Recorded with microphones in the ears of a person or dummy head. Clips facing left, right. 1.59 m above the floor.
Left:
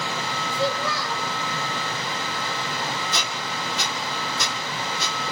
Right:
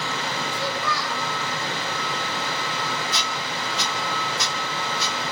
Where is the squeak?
55° left (ahead or behind), 2.5 m.